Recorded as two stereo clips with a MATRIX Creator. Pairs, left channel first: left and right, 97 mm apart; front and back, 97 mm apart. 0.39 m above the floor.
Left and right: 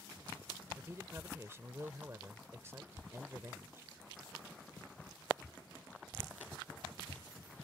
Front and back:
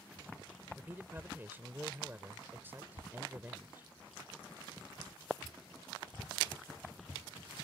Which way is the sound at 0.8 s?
130° right.